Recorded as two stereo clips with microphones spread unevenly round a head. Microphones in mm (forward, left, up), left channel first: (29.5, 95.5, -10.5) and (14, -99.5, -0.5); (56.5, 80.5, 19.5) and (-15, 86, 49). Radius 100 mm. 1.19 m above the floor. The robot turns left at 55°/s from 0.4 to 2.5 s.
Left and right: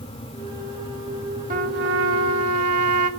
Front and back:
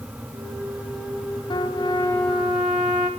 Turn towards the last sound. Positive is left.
turn(degrees=-100)